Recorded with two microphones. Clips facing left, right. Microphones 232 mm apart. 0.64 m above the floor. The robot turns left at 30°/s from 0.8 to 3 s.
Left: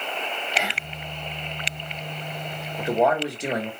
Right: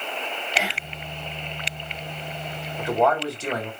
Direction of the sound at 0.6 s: 5° right (ahead or behind).